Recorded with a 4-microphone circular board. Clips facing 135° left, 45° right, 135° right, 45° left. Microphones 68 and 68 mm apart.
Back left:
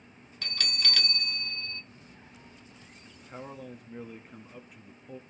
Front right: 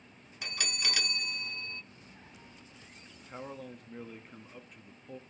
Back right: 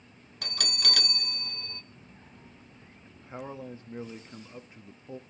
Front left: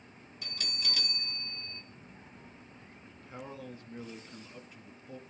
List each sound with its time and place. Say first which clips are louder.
0.4 s a bell: back left 2 dB, back right 6 dB; 120° right, 0.7 m
3.1 s a man speaking: back left 1 dB, back right 5 dB; 140° right, 1.2 m